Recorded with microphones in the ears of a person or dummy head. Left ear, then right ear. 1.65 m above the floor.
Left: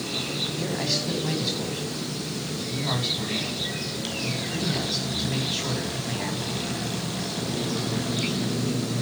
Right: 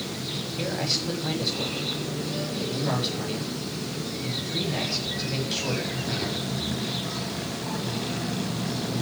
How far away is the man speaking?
About 8.5 m.